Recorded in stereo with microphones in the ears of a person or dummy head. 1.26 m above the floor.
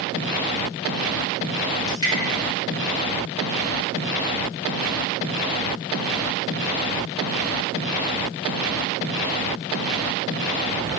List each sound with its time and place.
1.9 s dripping: 25° left (ahead or behind), 1.5 m